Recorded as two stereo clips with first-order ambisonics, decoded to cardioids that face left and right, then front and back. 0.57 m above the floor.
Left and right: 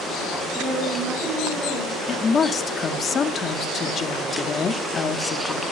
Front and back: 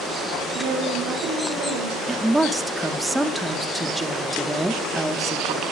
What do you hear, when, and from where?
0.5 s a woman speaking: 145° right, 6 m
2.1 s a woman speaking: 100° left, 0.9 m